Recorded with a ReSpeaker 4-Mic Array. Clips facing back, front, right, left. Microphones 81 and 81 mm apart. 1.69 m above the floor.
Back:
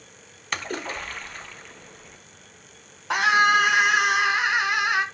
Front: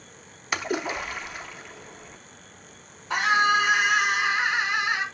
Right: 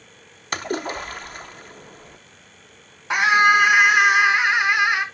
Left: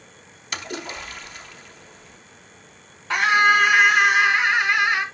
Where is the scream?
165° right, 1.9 m.